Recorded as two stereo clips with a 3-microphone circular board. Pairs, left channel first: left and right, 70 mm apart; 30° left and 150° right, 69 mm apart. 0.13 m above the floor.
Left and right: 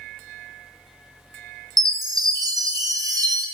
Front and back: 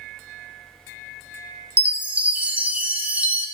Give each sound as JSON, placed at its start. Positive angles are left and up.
{"t": 1.8, "sound": "a chime", "azimuth_deg": -80, "distance_m": 0.9}